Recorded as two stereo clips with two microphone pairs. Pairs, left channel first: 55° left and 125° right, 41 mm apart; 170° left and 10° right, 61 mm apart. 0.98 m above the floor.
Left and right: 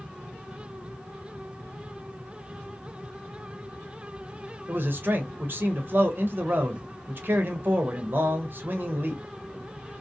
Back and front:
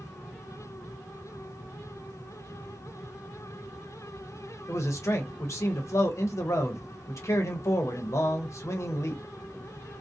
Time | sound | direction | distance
4.7 | a man speaking | 155° right | 0.7 m